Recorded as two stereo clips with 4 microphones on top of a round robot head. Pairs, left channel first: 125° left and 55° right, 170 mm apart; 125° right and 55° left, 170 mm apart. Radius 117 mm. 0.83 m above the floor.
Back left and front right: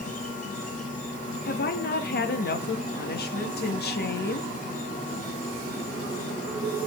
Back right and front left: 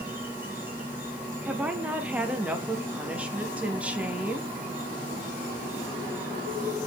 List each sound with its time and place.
0.0 s an insect: 130° left, 1.6 m
1.4 s a woman speaking: 135° left, 1.2 m